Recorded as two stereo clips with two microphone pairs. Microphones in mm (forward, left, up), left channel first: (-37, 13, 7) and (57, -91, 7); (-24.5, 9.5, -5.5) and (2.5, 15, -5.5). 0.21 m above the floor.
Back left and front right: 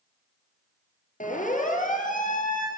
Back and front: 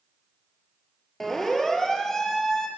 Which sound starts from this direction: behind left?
A siren, at 1.2 s.